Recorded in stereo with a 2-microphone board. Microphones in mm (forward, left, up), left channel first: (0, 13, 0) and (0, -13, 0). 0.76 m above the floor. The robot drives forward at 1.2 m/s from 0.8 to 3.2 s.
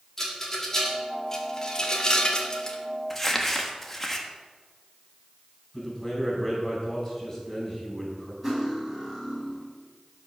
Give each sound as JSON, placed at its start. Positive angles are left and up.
{"t": 0.2, "sound": "a rattle", "side_deg": 20, "distance_m": 2.0}
{"t": 3.1, "sound": "crumpling", "side_deg": 15, "distance_m": 1.2}
{"t": 5.7, "sound": "a man speaking", "side_deg": 15, "distance_m": 5.0}
{"t": 8.4, "sound": "cutlery clinking", "side_deg": -15, "distance_m": 3.5}